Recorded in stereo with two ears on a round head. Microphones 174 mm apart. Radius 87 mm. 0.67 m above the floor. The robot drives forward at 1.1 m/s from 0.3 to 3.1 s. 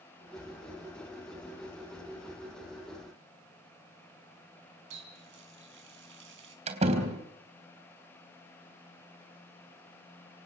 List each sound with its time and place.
4.9 s a running tap: 70° right (ahead or behind), 4 m
6.7 s a door slam: 35° right (ahead or behind), 3.5 m